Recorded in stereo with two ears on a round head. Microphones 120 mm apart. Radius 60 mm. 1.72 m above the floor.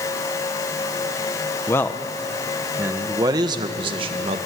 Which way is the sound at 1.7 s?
20° left (ahead or behind).